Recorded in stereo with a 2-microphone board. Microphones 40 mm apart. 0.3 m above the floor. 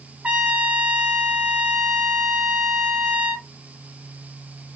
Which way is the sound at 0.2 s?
25° right (ahead or behind).